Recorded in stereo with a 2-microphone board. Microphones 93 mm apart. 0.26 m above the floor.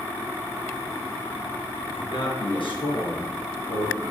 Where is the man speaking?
60° left (ahead or behind), 4 m.